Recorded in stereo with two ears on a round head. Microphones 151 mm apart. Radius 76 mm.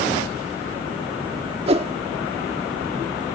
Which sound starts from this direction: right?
A whoosh, at 1.7 s.